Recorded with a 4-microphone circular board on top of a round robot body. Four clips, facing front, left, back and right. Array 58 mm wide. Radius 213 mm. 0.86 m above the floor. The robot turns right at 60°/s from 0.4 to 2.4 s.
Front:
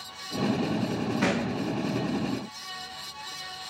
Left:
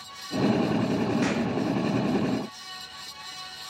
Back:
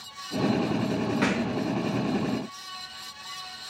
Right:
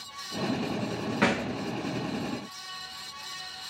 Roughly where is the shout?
I don't hear a shout.